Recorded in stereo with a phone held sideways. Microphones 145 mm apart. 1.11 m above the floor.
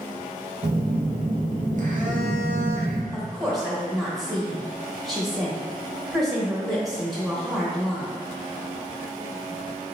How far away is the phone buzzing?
About 1.0 m.